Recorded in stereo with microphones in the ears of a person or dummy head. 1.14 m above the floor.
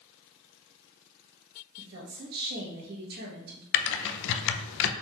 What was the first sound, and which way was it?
A woman speaking, 50° right (ahead or behind).